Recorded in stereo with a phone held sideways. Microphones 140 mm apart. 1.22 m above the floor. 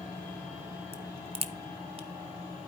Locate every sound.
0.9 s a crack: 45° right (ahead or behind), 0.7 m